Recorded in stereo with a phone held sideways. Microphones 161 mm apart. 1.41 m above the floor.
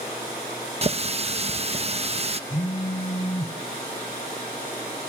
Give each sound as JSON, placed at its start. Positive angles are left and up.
{"t": 0.8, "sound": "a running tap", "side_deg": -40, "distance_m": 0.8}
{"t": 2.5, "sound": "a phone buzzing", "side_deg": 45, "distance_m": 1.8}